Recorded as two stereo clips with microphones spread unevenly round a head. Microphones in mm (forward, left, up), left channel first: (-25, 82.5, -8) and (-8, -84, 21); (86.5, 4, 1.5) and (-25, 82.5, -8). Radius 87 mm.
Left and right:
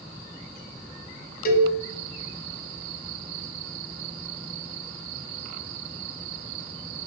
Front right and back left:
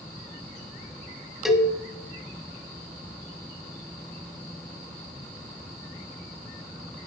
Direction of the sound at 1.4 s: 55° left.